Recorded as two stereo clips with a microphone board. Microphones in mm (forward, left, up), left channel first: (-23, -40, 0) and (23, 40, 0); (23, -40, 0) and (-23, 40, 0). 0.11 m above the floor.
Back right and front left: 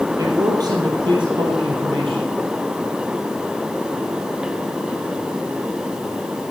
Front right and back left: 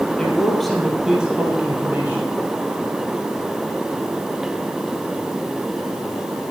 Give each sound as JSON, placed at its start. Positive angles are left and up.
{"t": 0.2, "sound": "a man speaking", "azimuth_deg": 20, "distance_m": 3.0}